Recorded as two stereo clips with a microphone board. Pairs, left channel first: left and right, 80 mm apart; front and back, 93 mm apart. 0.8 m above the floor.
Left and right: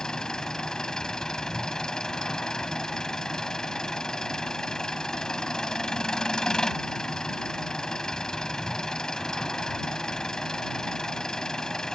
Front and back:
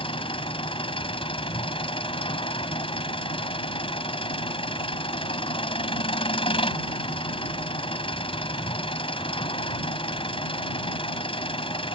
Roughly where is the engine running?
Ahead.